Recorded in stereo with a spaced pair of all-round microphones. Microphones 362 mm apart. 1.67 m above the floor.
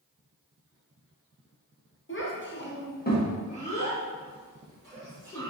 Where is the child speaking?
35° left (ahead or behind), 0.8 m; by 5.5 s 10° left (ahead or behind), 2.5 m.